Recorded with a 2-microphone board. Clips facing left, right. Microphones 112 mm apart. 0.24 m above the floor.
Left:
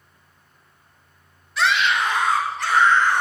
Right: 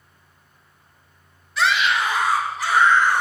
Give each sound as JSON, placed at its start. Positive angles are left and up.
{"t": 1.6, "sound": "a scream", "side_deg": 0, "distance_m": 1.1}